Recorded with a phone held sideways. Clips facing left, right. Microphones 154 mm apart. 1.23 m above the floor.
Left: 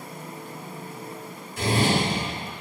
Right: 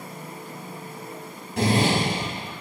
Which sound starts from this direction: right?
A zipper, at 1.6 s.